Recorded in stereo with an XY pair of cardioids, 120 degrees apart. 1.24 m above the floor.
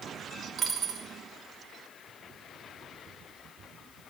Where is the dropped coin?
50° right, 2.5 m.